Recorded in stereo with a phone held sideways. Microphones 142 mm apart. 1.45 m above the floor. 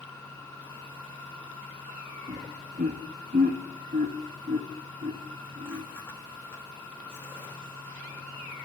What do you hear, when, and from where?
0.0 s a machine running: 15° left (ahead or behind), 3.5 m
2.3 s laughter: 65° right (ahead or behind), 2 m